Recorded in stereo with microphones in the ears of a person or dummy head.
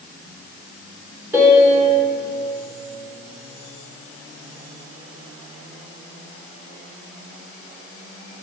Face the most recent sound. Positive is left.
turn(degrees=-5)  # may be behind; listen again after turning